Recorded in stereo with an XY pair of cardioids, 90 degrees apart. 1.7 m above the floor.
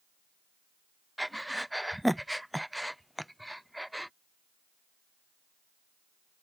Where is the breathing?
5° right.